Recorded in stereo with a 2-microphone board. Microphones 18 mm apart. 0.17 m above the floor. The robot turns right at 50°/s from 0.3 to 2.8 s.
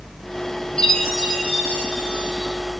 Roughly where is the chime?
Ahead left.